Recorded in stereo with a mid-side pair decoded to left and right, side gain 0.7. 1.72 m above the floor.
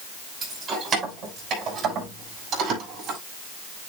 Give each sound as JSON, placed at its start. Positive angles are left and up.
{"t": 0.4, "sound": "keys jangling", "azimuth_deg": -35, "distance_m": 7.0}